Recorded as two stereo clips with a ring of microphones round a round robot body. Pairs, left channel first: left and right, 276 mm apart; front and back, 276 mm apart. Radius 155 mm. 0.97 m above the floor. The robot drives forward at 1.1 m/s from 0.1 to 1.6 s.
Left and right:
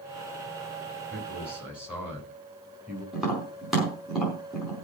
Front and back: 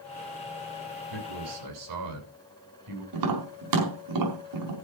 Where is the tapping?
Straight behind, 5 m.